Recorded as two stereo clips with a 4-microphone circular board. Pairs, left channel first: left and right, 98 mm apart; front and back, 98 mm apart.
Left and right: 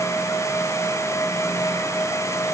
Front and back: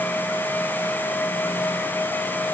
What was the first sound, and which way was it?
Only background noise.